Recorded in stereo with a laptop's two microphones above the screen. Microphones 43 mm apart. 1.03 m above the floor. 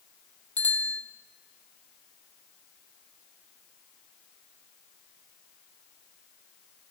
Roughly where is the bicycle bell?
Left.